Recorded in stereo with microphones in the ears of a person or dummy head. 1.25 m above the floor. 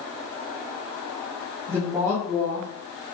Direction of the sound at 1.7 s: 15° right (ahead or behind).